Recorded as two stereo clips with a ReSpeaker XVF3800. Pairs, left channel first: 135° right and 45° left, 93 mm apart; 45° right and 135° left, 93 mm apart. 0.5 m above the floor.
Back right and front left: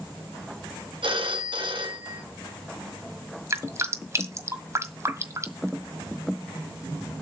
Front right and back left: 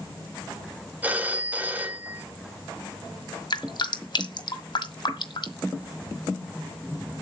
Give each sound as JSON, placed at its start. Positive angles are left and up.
{"t": 1.0, "sound": "a phone ringing", "azimuth_deg": 65, "distance_m": 2.0}
{"t": 3.5, "sound": "dripping", "azimuth_deg": -15, "distance_m": 1.5}